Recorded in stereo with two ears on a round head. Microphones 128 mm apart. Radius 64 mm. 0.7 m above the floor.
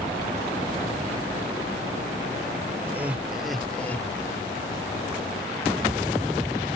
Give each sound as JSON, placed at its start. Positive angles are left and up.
{"t": 2.8, "sound": "laughter", "side_deg": -15}